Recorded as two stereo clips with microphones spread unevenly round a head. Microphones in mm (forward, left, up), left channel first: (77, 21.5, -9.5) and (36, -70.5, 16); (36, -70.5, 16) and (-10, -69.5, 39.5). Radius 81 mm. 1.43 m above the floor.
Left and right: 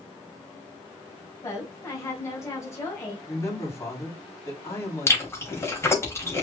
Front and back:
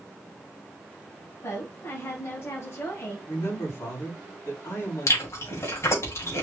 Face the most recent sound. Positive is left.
turn(degrees=0)